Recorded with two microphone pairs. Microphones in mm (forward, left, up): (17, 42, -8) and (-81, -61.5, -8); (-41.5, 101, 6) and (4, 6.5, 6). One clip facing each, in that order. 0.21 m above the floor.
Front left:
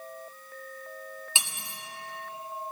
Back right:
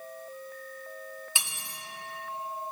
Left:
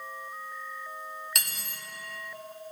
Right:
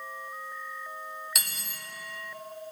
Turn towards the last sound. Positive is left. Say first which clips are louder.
# front left 1 dB, even
turn(degrees=25)